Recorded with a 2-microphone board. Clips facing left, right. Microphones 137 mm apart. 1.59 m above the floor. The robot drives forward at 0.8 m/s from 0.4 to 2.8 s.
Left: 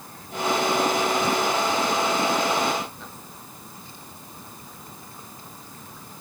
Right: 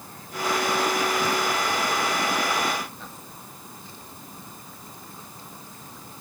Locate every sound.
Only background noise.